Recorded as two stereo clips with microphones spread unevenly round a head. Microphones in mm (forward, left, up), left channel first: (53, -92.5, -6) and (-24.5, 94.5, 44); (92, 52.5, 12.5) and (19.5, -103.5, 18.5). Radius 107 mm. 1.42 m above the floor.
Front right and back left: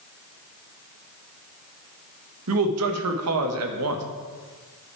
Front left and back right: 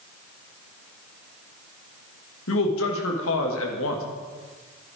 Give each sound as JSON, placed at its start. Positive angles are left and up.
{"t": 2.5, "sound": "a man speaking", "azimuth_deg": 100, "distance_m": 1.6}